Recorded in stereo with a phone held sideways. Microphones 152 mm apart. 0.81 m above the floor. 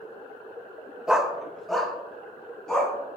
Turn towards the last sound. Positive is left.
turn(degrees=5)  # may be behind; listen again after turning